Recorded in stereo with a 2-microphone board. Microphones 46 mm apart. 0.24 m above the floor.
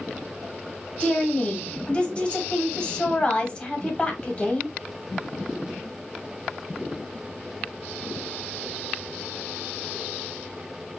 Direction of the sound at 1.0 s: 25° left (ahead or behind).